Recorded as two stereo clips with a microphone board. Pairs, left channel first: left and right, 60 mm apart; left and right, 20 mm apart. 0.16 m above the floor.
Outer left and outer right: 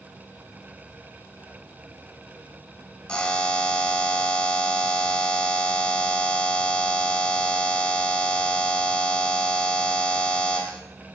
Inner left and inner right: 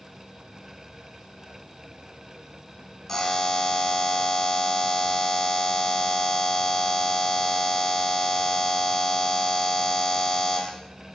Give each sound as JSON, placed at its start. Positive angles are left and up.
{"t": 3.1, "sound": "a buzzer", "side_deg": 20, "distance_m": 0.6}